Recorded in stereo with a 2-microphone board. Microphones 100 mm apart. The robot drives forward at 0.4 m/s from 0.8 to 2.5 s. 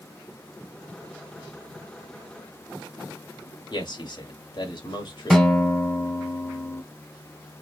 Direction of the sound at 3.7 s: 50° left (ahead or behind).